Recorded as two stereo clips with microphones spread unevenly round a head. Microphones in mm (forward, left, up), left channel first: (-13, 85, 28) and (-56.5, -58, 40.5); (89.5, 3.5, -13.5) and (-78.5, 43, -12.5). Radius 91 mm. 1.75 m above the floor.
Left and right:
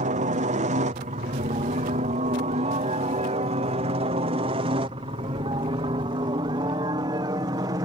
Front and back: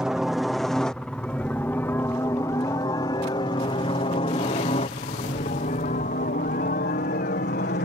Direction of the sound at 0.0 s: 110° right.